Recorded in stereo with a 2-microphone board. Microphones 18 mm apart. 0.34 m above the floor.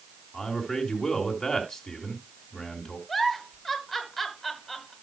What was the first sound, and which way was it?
A man speaking, 45° left (ahead or behind).